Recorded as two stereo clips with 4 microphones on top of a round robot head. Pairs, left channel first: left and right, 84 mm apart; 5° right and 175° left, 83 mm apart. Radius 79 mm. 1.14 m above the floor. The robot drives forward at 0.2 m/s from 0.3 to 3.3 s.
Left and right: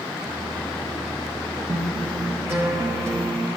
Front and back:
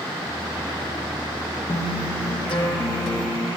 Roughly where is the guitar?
Ahead.